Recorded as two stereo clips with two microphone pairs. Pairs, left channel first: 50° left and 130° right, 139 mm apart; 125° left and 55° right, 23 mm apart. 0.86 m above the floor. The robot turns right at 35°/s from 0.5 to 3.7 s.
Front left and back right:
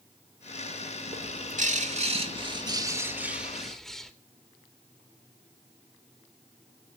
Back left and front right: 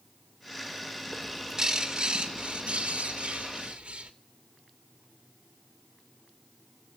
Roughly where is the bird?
Behind right.